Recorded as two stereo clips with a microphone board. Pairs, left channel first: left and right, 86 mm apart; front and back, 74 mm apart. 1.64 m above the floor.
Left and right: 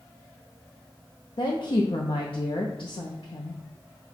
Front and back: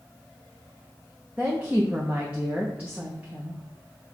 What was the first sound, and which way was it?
A woman speaking, 105° left.